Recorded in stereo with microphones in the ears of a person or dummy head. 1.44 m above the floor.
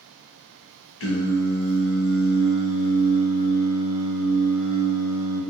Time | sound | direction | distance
1.0 | singing | 70° left (ahead or behind) | 0.7 m